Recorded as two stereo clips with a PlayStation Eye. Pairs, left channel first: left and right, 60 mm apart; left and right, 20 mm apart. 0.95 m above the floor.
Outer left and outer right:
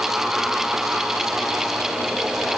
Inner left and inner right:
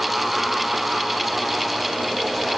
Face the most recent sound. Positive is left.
No sound to turn to.